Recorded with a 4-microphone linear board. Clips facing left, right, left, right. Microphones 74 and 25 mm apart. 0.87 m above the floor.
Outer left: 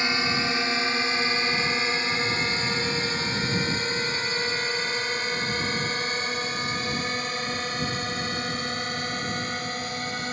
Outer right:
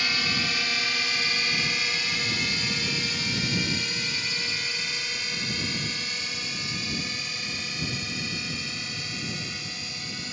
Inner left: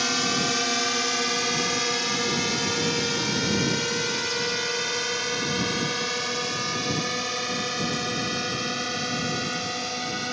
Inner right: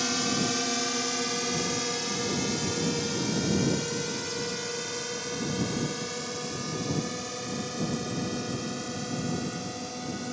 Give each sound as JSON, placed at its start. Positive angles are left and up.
{"t": 0.0, "sound": "a drone", "side_deg": 25}